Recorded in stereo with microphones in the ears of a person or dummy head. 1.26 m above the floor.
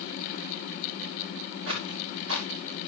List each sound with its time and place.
1.7 s footsteps: 75° right (ahead or behind), 6 m